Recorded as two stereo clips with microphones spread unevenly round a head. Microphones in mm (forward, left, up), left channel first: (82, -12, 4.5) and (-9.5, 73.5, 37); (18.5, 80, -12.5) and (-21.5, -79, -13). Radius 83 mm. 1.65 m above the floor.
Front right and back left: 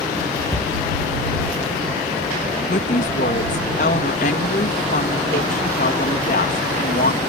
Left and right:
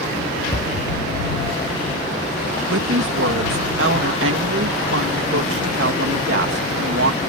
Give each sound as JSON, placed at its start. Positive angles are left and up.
{"t": 0.5, "sound": "a cupboard door", "azimuth_deg": 20}
{"t": 2.7, "sound": "a woman speaking", "azimuth_deg": -85}